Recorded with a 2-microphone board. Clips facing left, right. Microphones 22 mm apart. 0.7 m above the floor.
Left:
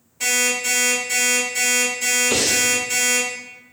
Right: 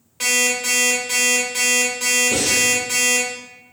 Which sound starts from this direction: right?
An alarm clock, at 0.2 s.